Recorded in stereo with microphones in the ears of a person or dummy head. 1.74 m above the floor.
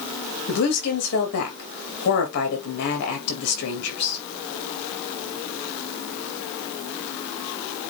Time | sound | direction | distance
0.5 | a woman speaking | 60° left (ahead or behind) | 3 m